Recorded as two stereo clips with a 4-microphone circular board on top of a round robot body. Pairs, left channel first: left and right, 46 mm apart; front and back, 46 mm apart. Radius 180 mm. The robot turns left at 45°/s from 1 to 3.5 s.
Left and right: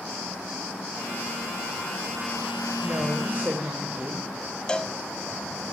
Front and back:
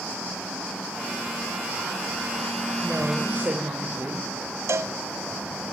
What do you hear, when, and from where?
2.8 s a woman speaking: 110° right, 3.5 m; by 4.3 s 140° right, 3.5 m
4.7 s a cowbell: 160° left, 1.3 m